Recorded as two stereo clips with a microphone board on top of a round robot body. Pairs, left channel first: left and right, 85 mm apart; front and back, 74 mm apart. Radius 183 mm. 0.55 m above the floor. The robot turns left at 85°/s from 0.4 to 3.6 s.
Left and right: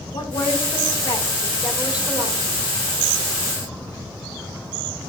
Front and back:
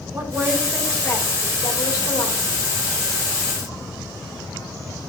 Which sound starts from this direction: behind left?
A woman speaking, at 0.1 s.